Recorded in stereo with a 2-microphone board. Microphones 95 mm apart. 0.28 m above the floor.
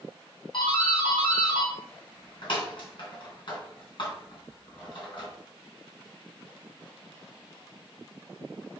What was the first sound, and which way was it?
A doorbell, 55° left (ahead or behind).